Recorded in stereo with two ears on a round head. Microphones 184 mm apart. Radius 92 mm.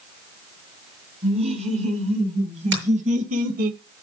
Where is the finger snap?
60° right (ahead or behind), 7.5 m.